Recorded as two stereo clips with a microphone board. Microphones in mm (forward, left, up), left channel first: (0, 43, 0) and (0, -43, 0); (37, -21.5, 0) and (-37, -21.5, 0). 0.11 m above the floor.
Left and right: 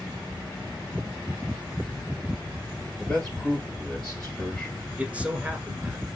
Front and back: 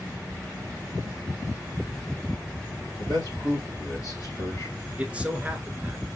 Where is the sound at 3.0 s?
10° left, 2.5 m.